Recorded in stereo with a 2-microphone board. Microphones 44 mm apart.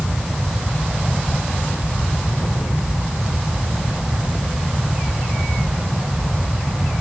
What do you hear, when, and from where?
Only background noise.